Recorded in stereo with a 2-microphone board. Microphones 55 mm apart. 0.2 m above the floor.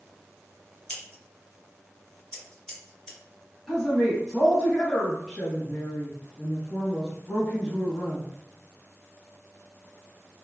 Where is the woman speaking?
5° left (ahead or behind), 1.6 m.